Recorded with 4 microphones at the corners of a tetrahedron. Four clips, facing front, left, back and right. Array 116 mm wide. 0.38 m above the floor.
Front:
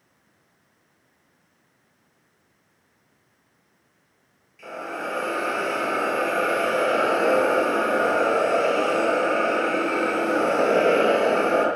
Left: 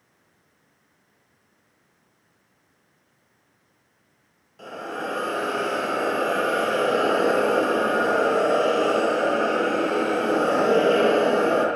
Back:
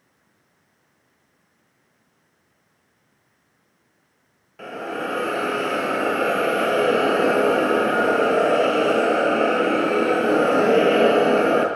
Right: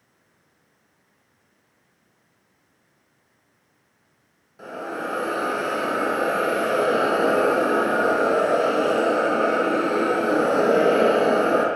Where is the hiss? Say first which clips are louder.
Right 1 dB, back 3 dB; 165° right, 8 m.